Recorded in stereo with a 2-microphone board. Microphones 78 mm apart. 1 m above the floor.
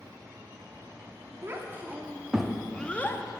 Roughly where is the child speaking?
Right.